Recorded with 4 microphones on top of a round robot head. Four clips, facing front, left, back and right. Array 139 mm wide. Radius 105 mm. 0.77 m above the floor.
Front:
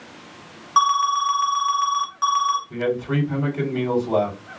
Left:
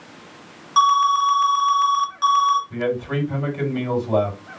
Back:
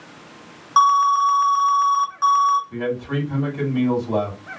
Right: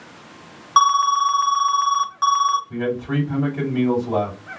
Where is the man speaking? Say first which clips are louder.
Even, front 2 dB; 65° right, 2.5 m.